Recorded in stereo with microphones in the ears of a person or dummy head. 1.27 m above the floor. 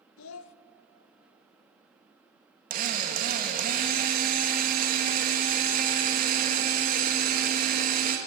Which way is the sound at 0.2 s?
75° left (ahead or behind).